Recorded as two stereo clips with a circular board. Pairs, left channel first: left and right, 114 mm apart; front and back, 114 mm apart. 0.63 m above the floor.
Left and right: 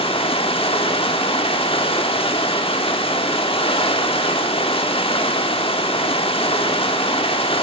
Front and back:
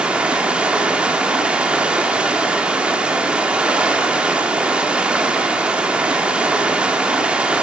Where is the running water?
100° left, 1.2 m.